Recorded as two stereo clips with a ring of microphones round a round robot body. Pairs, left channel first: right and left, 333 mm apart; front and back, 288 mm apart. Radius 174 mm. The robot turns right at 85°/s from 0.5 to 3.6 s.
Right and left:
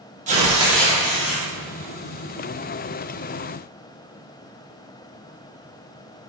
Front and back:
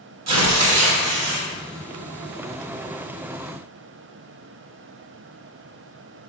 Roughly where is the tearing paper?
Behind.